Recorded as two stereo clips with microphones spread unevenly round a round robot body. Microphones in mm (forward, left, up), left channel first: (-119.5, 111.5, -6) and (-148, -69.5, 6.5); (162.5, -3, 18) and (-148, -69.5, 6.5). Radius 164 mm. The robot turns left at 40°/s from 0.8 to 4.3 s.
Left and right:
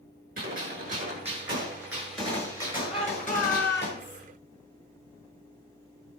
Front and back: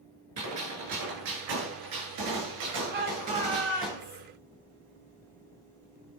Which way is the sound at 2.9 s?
130° left.